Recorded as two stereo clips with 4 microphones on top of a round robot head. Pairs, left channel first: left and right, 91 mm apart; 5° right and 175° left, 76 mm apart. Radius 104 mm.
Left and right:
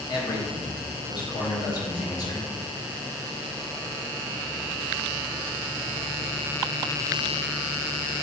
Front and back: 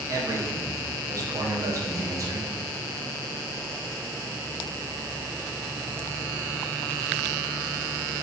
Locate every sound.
0.1 s a man speaking: 130° left, 1.0 m